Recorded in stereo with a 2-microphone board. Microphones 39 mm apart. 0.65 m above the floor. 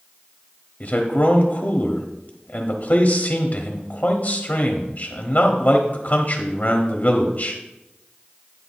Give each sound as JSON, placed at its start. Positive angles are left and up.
{"t": 0.8, "sound": "a man speaking", "side_deg": 40, "distance_m": 1.0}